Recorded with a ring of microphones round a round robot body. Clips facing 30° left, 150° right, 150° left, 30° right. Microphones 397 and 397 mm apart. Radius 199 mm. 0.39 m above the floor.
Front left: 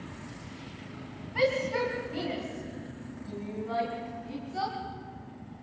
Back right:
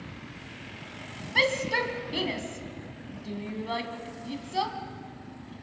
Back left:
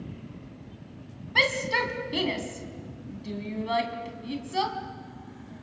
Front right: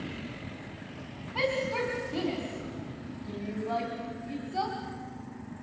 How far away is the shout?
About 3 m.